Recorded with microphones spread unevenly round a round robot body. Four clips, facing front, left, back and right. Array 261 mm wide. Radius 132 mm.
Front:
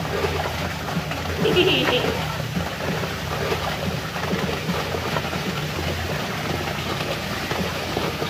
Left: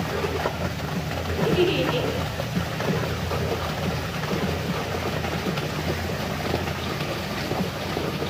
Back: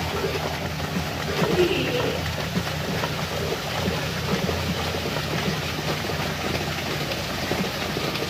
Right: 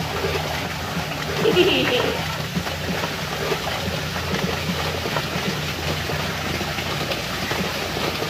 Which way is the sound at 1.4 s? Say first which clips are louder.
Right 4 dB, front 4 dB; 65° right.